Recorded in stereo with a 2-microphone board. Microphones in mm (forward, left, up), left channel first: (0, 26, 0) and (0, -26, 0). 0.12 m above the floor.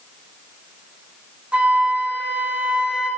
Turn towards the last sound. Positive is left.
turn(degrees=-20)  # may be behind; listen again after turning